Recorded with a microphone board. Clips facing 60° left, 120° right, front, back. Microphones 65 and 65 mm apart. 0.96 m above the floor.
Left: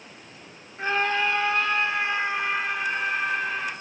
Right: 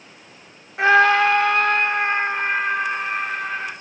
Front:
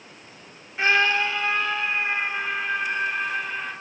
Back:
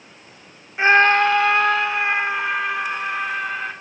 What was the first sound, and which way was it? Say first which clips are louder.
A scream: right 10 dB, back 7 dB; 105° right.